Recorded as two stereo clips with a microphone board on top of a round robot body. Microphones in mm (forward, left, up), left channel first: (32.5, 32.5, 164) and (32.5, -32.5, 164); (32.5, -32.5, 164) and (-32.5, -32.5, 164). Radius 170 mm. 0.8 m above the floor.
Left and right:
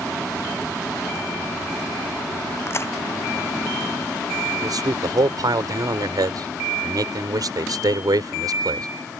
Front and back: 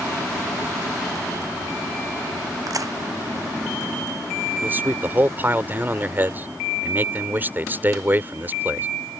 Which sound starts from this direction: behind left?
A crack, at 2.7 s.